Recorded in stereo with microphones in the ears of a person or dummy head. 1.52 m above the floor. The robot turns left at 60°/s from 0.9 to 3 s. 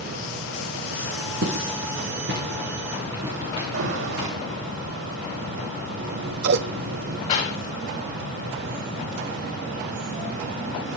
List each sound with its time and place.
1.4 s footsteps: 70° right (ahead or behind), 6.5 m; by 4.3 s 25° right (ahead or behind), 7 m
3.7 s an alarm: 85° right, 4.5 m
6.0 s scissors: 50° right (ahead or behind), 0.8 m
7.3 s a clap: 40° left (ahead or behind), 8.5 m